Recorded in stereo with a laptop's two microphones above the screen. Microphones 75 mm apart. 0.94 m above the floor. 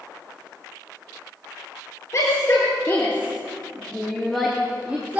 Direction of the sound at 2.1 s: 40° left (ahead or behind).